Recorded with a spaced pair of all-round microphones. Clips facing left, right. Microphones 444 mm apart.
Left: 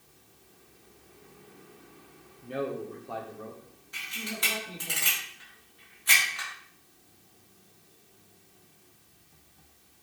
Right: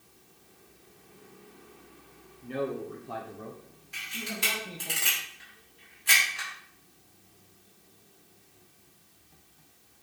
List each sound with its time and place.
2.4 s a man speaking: 5° right (ahead or behind), 1.0 m; by 4.9 s 85° right, 1.6 m
3.9 s a camera shutter: 45° right (ahead or behind), 3.5 m